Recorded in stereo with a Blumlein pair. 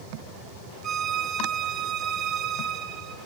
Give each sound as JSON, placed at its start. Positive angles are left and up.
{"t": 0.8, "sound": "a violin", "azimuth_deg": -30, "distance_m": 0.5}